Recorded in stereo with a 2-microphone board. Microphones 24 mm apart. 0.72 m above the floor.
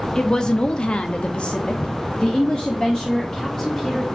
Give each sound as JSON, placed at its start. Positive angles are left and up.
{"t": 0.1, "sound": "a woman speaking", "side_deg": 25, "distance_m": 1.0}